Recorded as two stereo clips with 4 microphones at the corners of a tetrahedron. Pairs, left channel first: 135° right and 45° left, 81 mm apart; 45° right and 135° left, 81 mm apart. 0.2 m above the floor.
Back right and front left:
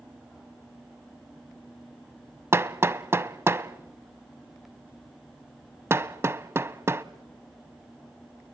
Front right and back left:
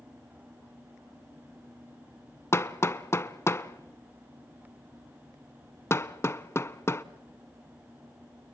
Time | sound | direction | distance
2.5 | hammering | 5° right | 0.6 m